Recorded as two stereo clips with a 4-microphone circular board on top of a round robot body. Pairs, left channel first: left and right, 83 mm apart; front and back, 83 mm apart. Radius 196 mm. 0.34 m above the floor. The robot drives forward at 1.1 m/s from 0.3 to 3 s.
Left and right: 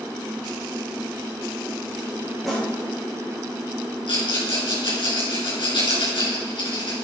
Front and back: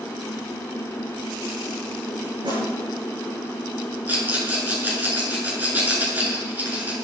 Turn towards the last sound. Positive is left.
turn(degrees=110)